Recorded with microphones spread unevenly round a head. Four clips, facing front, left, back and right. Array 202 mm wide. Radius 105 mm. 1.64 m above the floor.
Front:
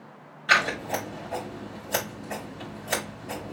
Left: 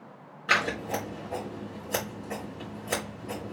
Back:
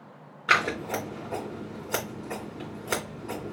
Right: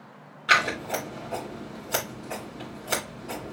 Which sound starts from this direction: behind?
Scissors, at 0.5 s.